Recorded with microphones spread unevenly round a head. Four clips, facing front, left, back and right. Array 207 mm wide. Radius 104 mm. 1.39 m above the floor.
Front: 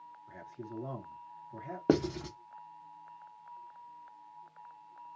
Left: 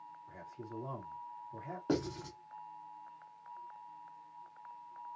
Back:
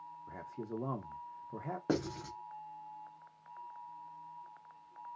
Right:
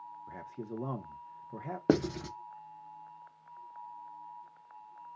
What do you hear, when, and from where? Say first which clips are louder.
0.3 s a man speaking: right 5 dB, back 2 dB; 130° right, 1.0 m
1.9 s writing: right 7 dB, front 7 dB; 50° right, 0.9 m